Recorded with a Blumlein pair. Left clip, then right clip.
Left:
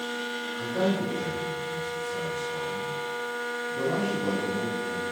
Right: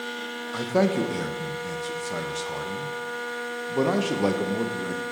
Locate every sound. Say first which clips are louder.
0.5 s a man speaking: right 5 dB; 35° right, 0.9 m